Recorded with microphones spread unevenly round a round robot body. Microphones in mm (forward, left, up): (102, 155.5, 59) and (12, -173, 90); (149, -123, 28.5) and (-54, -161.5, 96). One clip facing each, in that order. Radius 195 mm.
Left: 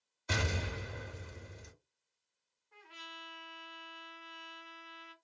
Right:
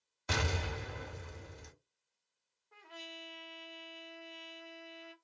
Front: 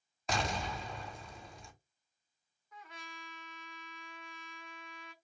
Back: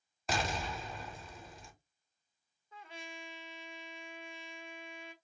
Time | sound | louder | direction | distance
0.3 | an explosion | even, even | 75° right | 1.2 m
2.7 | a trumpet | right 5 dB, back 4 dB | 95° right | 1.0 m